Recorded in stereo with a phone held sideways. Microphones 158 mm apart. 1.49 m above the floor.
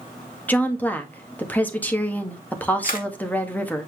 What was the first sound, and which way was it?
A woman speaking, 10° left (ahead or behind).